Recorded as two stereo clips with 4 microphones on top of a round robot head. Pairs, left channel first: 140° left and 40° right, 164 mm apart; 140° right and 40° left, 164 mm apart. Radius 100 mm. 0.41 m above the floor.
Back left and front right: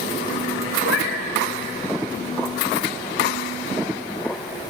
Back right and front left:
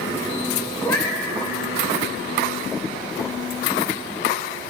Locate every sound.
0.8 s a cat meowing: 140° left, 4.5 m